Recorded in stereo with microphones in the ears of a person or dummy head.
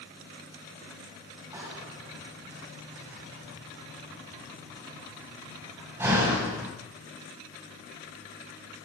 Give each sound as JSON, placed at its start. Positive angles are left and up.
{"t": 1.5, "sound": "a door slam", "side_deg": -15, "distance_m": 10.0}